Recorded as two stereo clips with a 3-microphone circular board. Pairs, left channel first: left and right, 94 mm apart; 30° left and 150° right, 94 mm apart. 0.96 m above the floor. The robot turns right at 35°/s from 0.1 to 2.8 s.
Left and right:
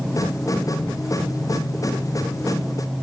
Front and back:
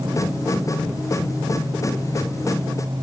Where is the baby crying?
I don't hear a baby crying.